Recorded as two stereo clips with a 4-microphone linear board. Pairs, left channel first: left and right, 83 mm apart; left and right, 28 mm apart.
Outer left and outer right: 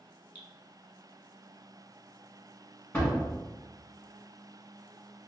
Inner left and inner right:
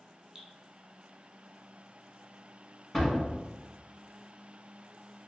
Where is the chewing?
I don't hear chewing.